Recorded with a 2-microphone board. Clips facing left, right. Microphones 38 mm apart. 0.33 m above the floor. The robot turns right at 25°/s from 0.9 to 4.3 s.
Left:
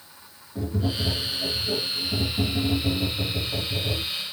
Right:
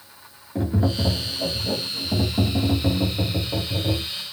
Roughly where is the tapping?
Right.